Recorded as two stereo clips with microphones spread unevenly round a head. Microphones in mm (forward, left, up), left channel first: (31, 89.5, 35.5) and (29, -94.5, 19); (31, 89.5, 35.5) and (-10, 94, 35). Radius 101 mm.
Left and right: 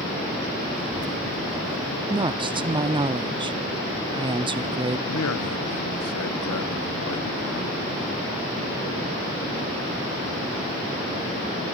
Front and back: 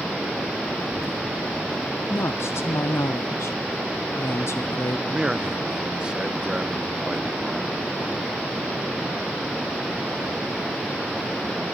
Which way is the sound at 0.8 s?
40° right.